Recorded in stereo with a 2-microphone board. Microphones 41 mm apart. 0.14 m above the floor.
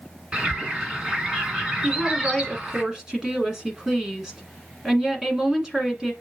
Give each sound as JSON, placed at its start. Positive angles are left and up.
{"t": 0.3, "sound": "a bird", "side_deg": -20, "distance_m": 1.5}
{"t": 1.8, "sound": "a woman speaking", "side_deg": -15, "distance_m": 1.3}